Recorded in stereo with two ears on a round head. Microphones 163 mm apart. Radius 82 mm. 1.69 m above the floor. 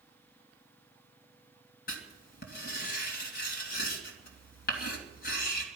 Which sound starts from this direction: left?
Writing, at 1.9 s.